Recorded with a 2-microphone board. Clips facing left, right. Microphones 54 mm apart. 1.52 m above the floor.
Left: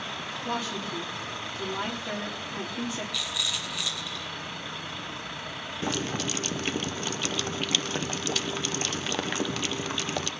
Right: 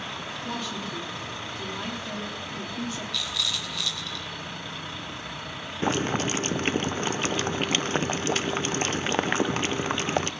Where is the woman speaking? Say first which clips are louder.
Left 2 dB; 20° left (ahead or behind), 3.5 m.